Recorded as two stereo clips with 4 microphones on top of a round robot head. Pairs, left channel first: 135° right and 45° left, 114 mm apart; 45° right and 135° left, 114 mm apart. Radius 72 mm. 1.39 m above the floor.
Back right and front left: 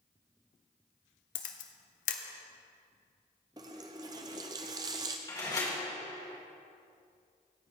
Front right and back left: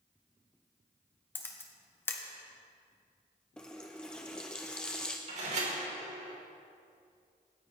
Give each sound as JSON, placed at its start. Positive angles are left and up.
{"t": 1.4, "sound": "a camera shutter", "azimuth_deg": -120, "distance_m": 0.9}
{"t": 3.6, "sound": "a running tap", "azimuth_deg": 35, "distance_m": 0.5}
{"t": 5.3, "sound": "a door slam", "azimuth_deg": 165, "distance_m": 4.0}